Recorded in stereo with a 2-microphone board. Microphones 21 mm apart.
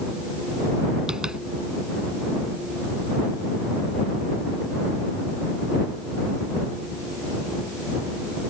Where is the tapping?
35° right (ahead or behind).